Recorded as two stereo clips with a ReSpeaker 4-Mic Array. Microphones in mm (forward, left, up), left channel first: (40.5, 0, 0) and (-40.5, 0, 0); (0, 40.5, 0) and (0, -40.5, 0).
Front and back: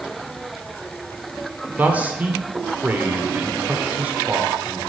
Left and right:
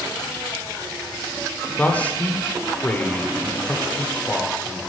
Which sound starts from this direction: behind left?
A man speaking, at 1.8 s.